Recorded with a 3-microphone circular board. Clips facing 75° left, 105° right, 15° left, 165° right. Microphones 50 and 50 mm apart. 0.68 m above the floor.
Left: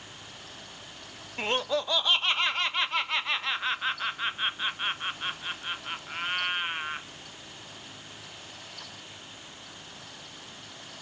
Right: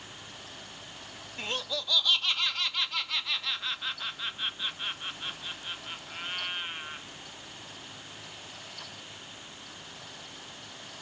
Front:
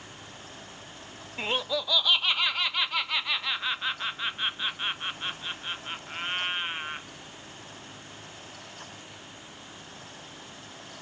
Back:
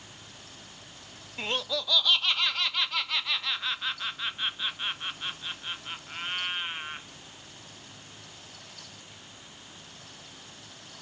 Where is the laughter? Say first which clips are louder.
Left 7 dB, front 2 dB; 80° left.